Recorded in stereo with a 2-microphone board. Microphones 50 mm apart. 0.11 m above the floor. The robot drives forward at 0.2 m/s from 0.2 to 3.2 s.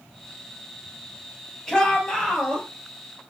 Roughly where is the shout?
Centre.